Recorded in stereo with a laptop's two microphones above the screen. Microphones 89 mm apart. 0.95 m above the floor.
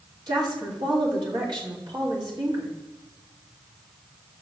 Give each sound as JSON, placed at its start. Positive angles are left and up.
{"t": 0.3, "sound": "a woman speaking", "side_deg": -55, "distance_m": 2.5}